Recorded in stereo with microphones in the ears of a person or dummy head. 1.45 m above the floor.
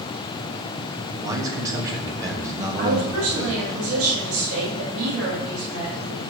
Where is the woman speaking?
70° right (ahead or behind), 3 m.